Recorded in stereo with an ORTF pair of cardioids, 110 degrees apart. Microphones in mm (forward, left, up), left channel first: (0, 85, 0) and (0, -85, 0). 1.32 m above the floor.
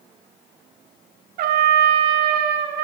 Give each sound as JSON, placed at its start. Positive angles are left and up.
{"t": 1.4, "sound": "a trumpet", "azimuth_deg": -65, "distance_m": 0.5}